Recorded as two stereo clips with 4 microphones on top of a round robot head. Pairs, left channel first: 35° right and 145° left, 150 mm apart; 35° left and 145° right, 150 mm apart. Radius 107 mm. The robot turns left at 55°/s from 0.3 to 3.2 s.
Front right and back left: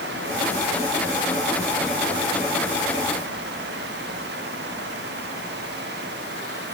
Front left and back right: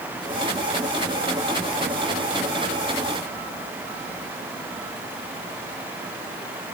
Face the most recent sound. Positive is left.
No sound to turn to.